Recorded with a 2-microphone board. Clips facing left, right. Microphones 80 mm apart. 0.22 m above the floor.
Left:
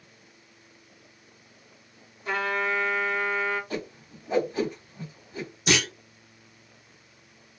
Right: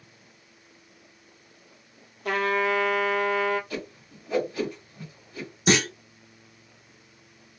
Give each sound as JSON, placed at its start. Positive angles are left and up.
{"t": 2.2, "sound": "a trumpet", "side_deg": -85, "distance_m": 0.8}
{"t": 3.7, "sound": "a whoosh", "side_deg": 30, "distance_m": 1.8}
{"t": 5.7, "sound": "a clunk", "side_deg": -40, "distance_m": 0.6}